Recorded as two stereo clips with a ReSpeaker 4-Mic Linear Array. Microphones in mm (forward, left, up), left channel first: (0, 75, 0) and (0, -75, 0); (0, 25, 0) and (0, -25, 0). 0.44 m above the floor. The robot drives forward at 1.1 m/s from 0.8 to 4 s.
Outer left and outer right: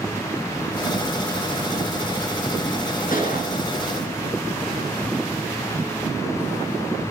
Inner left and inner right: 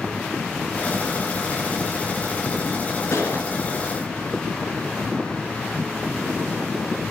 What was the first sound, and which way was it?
A gunshot, 65° left (ahead or behind).